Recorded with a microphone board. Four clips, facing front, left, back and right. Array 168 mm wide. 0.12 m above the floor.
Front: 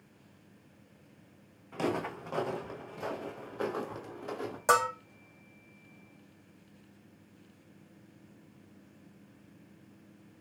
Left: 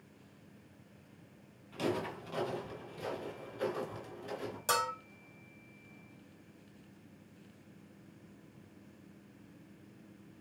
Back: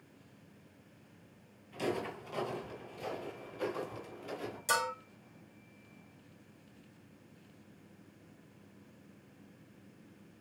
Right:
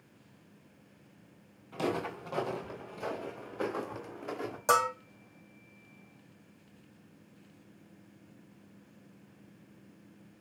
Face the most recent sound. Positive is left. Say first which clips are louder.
# right 7 dB, front 7 dB
turn(degrees=-30)